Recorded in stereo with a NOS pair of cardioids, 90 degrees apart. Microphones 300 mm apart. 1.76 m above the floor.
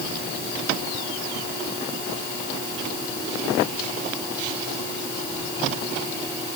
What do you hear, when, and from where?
Only background noise.